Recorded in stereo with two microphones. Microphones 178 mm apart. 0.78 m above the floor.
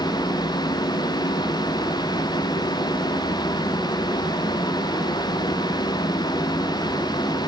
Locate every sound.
Only background noise.